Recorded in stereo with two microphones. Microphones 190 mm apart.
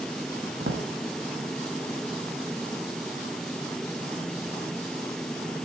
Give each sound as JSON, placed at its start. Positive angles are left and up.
{"t": 0.6, "sound": "a drawer", "side_deg": -75, "distance_m": 3.5}